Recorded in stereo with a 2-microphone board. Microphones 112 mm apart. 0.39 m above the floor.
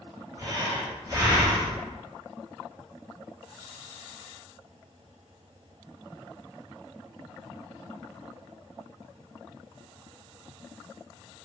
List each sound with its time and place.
0.4 s breathing: 35° right (ahead or behind), 1.6 m